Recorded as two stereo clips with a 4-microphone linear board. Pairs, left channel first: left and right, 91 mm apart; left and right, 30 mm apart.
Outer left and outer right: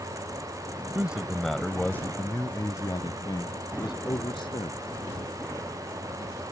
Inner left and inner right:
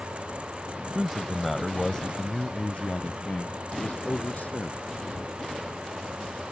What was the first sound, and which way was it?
A man speaking, 15° right (ahead or behind).